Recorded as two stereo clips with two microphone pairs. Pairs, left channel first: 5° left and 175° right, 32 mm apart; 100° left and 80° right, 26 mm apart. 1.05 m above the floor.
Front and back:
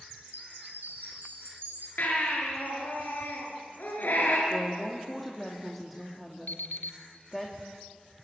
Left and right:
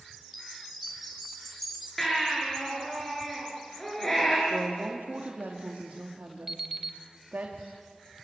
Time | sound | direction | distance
0.2 | a chime | 170° right | 4 m
2.0 | a baby crying | 25° left | 9.5 m
4.5 | a woman speaking | 85° right | 2.5 m
6.5 | an alarm clock | straight ahead | 2.5 m